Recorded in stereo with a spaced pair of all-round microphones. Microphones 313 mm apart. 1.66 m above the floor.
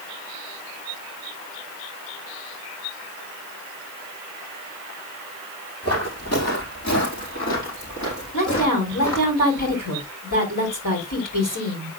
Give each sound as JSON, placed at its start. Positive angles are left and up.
{"t": 5.8, "sound": "footsteps", "side_deg": 50, "distance_m": 4.0}
{"t": 8.3, "sound": "a woman speaking", "side_deg": 80, "distance_m": 5.5}